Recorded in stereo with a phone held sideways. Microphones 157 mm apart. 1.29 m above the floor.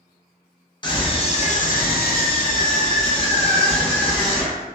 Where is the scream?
30° left (ahead or behind), 0.8 m; by 4.6 s 20° left (ahead or behind), 1.5 m.